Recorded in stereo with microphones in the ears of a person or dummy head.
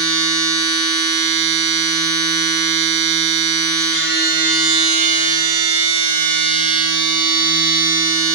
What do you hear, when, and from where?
0.0 s a machine running: 70° right (ahead or behind), 1.8 m